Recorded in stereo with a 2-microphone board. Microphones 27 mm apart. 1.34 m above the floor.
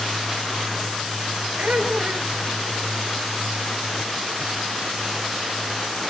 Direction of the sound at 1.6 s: 65° right (ahead or behind).